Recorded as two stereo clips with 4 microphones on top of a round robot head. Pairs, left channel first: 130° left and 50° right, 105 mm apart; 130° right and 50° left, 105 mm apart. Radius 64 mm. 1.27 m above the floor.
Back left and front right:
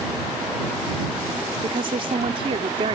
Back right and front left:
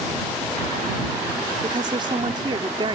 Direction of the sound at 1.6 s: 5° right.